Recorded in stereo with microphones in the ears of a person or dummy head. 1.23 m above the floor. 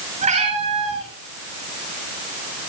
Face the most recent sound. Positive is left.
turn(degrees=-30)  # may be behind; listen again after turning